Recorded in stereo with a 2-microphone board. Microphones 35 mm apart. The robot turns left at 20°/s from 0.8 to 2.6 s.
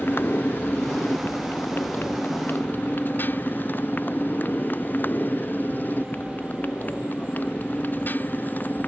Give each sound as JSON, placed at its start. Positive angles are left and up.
{"t": 0.0, "sound": "a motorcycle", "side_deg": 80}